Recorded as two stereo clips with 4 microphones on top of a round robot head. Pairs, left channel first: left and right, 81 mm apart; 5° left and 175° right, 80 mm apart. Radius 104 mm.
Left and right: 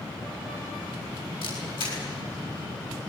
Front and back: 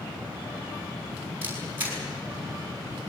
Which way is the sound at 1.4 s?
115° left.